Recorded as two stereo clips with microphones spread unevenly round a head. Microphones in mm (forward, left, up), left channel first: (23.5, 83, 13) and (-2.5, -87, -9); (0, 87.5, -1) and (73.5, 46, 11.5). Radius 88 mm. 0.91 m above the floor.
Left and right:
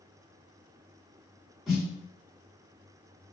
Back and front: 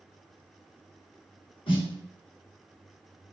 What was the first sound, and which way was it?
A snare drum, 170° left.